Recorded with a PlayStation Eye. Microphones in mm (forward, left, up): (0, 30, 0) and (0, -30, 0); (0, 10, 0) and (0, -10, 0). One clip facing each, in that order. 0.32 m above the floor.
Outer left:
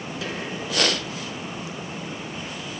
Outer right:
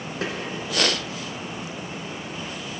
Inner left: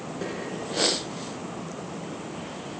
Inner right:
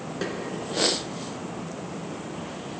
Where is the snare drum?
45° right (ahead or behind), 2.5 m.